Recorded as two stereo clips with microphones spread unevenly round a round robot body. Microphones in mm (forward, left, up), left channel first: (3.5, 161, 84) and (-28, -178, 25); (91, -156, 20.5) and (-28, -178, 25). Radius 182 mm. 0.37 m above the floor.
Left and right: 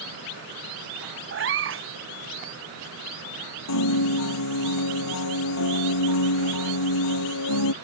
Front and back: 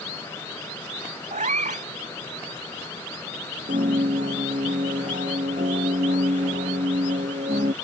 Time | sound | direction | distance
1.3 | a cat meowing | 150° right | ?
3.7 | a piano | 125° left | ?